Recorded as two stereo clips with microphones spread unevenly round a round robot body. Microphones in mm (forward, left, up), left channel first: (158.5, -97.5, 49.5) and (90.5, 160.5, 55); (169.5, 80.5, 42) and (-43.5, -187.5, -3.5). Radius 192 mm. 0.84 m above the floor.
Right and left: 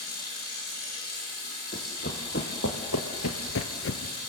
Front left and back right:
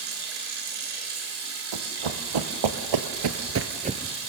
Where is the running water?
125° right, 6.5 m.